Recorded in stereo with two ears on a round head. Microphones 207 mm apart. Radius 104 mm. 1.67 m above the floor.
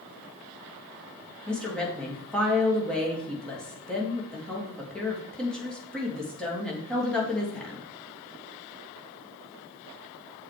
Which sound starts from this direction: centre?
A woman speaking, at 1.5 s.